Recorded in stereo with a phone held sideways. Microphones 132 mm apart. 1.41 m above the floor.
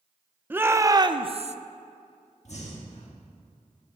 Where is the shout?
15° right (ahead or behind), 0.8 m; by 1.6 s 60° right (ahead or behind), 0.5 m.